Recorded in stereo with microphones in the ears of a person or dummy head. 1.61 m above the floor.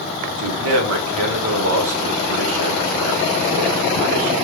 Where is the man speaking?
75° right (ahead or behind), 0.9 m.